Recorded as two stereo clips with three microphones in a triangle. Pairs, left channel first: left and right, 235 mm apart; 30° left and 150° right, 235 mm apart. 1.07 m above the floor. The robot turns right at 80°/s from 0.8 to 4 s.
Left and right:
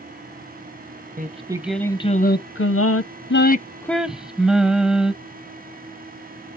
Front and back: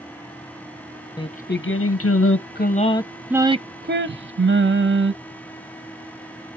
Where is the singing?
45° right, 0.6 m; by 5.1 s straight behind, 0.6 m.